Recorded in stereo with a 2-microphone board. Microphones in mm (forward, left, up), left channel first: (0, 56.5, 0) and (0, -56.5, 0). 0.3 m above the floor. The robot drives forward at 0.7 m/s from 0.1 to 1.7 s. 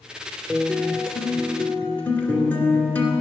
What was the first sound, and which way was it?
A guitar, 10° left (ahead or behind).